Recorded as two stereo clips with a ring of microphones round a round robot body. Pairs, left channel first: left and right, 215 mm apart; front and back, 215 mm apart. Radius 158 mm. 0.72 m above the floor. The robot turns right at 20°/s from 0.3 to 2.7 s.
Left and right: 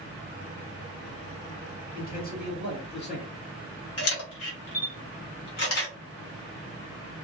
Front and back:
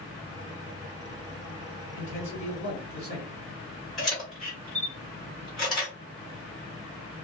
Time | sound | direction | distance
1.9 | a man speaking | 50° left | 1.7 m
4.0 | a camera shutter | 90° left | 1.4 m